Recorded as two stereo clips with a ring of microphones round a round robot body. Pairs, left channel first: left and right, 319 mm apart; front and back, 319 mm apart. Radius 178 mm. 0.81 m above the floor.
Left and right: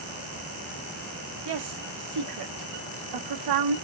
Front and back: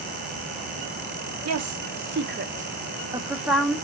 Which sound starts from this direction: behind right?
A woman speaking, at 1.4 s.